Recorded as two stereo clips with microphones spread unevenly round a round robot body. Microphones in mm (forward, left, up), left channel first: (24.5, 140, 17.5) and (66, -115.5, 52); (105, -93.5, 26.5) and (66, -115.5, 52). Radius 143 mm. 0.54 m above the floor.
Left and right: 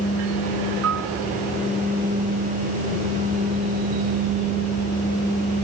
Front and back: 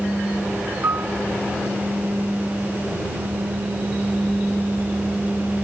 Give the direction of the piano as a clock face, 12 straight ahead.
4 o'clock.